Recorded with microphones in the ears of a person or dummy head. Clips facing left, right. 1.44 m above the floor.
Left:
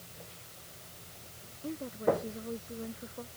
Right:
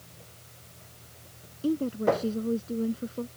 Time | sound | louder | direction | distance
1.6 | a woman speaking | right 6 dB | 50° right (ahead or behind) | ?